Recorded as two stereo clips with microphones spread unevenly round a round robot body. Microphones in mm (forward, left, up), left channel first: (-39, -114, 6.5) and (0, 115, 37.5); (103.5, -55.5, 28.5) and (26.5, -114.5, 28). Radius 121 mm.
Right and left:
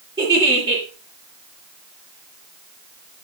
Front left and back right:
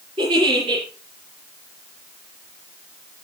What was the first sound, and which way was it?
A giggle, 155° left.